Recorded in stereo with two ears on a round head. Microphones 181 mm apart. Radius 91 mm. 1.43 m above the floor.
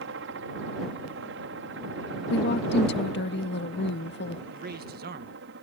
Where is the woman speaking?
60° left (ahead or behind).